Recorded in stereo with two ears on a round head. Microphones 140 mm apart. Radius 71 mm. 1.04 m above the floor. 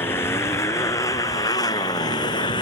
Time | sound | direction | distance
0.0 | a motorcycle | 15° left (ahead or behind) | ?